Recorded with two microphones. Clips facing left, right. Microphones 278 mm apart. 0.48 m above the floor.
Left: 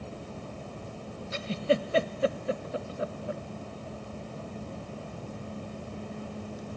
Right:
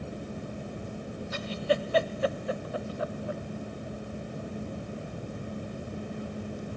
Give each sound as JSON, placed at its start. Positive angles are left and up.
{"t": 1.3, "sound": "a giggle", "side_deg": 25, "distance_m": 0.5}